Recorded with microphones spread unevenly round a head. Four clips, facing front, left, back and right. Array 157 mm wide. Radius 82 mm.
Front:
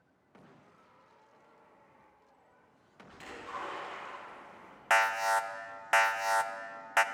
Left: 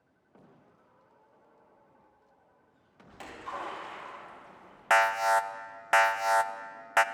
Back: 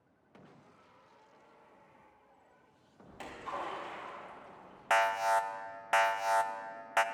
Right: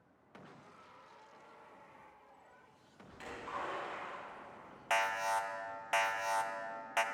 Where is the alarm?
70° left, 0.6 m.